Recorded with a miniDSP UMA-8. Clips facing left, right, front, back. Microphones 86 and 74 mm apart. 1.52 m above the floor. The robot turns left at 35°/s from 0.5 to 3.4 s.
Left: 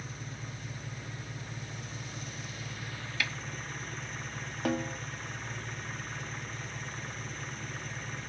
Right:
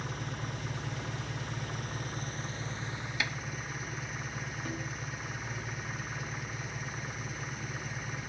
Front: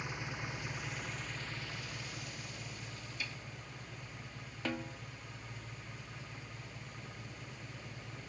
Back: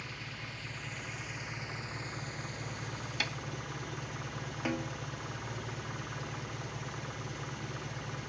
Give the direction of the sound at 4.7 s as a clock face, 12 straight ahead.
9 o'clock.